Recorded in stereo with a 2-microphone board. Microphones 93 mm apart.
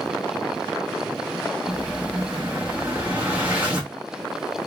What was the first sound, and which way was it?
An explosion, 20° right (ahead or behind).